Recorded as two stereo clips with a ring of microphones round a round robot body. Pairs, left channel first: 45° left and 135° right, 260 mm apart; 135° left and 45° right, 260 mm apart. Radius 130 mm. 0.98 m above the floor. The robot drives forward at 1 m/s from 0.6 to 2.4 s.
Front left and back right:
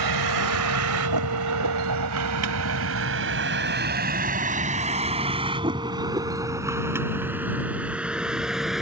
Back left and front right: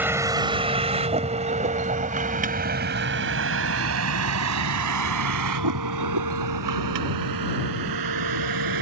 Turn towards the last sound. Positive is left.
turn(degrees=-45)